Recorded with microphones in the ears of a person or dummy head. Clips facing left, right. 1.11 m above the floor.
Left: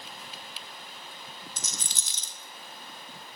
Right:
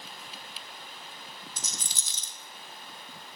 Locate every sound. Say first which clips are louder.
1.6 s a rattle: left 1 dB; 60° left (ahead or behind), 0.9 m